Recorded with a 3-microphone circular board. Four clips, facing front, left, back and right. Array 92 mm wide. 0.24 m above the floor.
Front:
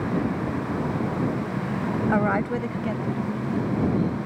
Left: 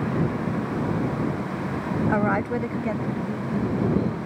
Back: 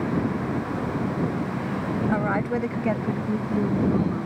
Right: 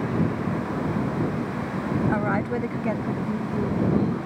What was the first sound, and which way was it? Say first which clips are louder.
A woman speaking: left 1 dB, front 2 dB; 30° left.